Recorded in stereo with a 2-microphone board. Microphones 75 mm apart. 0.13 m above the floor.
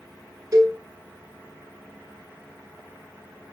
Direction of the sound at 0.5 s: 45° right (ahead or behind).